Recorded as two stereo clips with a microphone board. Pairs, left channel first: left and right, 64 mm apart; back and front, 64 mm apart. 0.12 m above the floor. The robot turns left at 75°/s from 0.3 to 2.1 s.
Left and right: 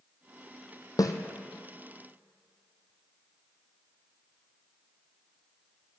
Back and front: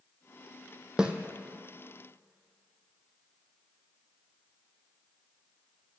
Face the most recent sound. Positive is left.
turn(degrees=-5)